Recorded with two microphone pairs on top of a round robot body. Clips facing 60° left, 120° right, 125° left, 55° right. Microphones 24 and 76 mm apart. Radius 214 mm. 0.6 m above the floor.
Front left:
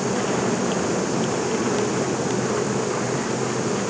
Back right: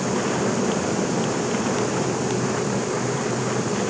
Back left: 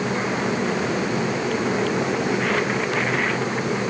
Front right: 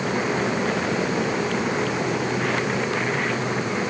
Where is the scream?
No scream in this recording.